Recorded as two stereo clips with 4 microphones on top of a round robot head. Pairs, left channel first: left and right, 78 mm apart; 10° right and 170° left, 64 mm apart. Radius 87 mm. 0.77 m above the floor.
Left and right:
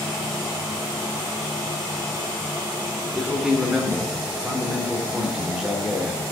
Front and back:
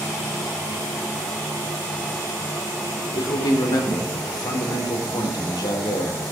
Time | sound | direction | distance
3.1 | a man speaking | 5° right | 3 m